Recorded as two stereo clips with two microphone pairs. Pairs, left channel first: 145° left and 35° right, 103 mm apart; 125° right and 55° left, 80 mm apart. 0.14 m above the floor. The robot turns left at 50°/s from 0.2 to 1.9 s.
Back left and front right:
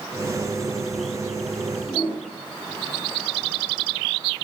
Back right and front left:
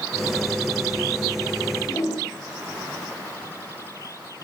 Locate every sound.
1.9 s a whoosh: 175° right, 7.5 m